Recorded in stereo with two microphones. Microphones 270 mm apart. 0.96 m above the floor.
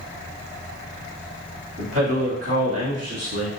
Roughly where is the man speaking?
Right.